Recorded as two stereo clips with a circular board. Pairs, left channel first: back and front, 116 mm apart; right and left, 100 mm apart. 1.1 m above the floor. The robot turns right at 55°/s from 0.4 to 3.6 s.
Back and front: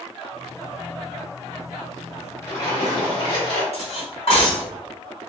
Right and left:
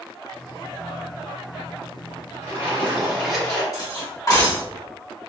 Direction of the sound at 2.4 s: 135° left.